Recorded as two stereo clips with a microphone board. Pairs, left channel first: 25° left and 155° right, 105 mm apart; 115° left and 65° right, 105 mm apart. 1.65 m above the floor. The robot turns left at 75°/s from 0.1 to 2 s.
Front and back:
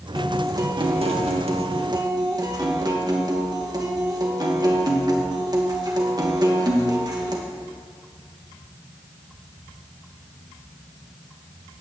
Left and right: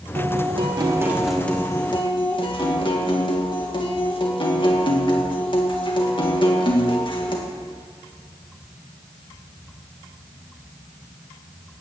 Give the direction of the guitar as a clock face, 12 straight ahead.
2 o'clock.